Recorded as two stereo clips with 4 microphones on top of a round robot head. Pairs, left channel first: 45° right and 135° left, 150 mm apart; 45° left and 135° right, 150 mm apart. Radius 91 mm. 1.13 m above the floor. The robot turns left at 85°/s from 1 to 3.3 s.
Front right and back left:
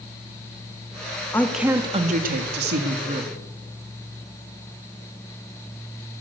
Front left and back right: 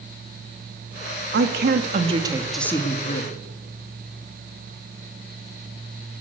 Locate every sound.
1.3 s a woman speaking: 120° right, 2 m; by 3.4 s 70° left, 2 m